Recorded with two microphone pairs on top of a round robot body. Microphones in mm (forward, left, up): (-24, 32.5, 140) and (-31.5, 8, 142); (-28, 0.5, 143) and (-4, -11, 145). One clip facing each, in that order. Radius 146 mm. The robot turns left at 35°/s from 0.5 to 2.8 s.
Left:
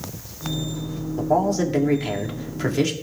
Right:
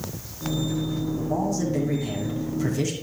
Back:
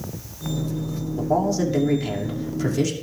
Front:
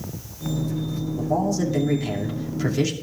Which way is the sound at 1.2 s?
105° left.